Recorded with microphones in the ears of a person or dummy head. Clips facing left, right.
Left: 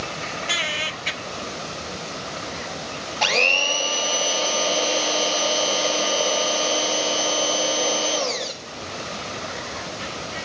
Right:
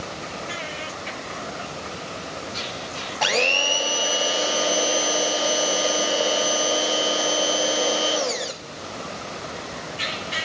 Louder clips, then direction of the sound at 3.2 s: Right 1 dB; 5° right (ahead or behind).